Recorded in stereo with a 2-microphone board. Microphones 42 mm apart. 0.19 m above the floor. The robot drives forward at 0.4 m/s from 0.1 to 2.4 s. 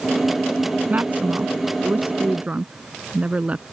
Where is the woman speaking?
45° right (ahead or behind); by 3.6 s 35° right (ahead or behind).